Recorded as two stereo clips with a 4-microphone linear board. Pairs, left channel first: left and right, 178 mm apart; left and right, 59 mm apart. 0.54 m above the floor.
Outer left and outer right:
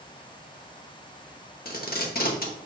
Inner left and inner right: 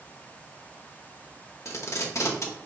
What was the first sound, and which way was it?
Tape being pulled, 60° left (ahead or behind).